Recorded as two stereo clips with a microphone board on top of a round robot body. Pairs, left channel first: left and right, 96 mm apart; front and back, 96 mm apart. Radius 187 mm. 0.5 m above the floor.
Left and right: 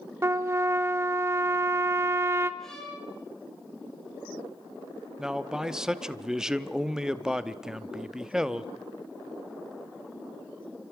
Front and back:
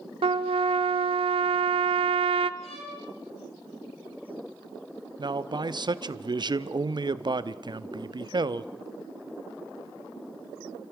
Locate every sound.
0.2 s a trumpet: 155° right, 0.5 m
2.6 s a violin: 5° left, 5.5 m
5.2 s a man speaking: 175° right, 1.1 m